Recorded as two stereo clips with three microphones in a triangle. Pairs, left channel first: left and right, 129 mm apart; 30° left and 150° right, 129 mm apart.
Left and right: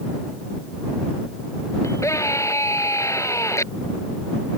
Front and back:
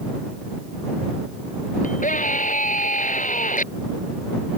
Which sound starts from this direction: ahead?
A scream, at 1.8 s.